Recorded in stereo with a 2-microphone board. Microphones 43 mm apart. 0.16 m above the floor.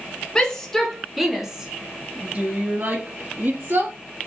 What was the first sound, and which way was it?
A shout, 15° left (ahead or behind).